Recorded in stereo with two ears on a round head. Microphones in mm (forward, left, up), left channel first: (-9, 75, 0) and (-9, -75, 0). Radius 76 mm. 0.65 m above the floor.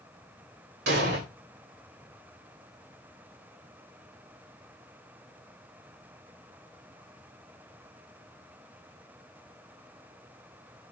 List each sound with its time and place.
0.9 s an explosion: 75° right (ahead or behind), 2.5 m